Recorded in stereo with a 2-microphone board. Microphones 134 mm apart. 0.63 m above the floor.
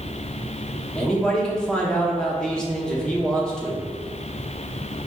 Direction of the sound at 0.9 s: 5° left (ahead or behind).